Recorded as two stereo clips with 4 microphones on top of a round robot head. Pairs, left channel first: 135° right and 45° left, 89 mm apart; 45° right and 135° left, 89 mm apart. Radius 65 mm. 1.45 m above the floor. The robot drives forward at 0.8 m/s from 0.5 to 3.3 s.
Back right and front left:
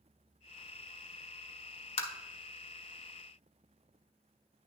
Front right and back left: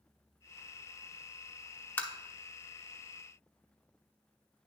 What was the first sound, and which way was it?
Tapping, 120° right.